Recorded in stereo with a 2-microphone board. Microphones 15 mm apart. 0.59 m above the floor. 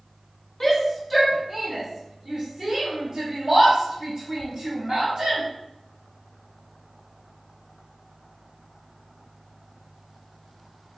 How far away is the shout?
About 1.1 m.